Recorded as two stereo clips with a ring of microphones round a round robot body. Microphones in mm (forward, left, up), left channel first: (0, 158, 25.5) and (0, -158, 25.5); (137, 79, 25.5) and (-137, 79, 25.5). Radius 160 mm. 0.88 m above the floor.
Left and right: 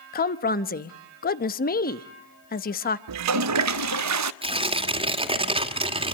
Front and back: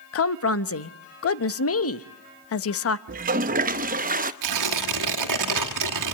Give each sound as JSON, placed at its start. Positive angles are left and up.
{"t": 0.1, "sound": "a woman speaking", "azimuth_deg": 30, "distance_m": 0.9}
{"t": 3.1, "sound": "a toilet flushing", "azimuth_deg": -120, "distance_m": 0.7}
{"t": 4.4, "sound": "tearing paper", "azimuth_deg": -165, "distance_m": 2.0}